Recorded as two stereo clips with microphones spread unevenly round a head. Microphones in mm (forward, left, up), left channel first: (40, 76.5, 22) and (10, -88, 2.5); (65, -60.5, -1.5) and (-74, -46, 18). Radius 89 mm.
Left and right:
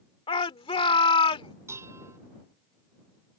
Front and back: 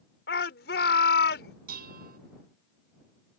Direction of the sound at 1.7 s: 175° right.